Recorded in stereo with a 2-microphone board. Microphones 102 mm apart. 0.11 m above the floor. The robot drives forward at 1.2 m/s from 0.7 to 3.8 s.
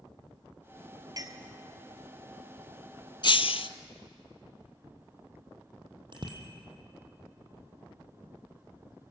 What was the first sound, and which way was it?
A clink, 40° right (ahead or behind).